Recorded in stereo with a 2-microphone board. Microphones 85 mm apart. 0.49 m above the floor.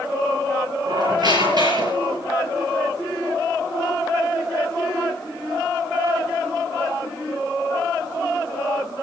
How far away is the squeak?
About 8 m.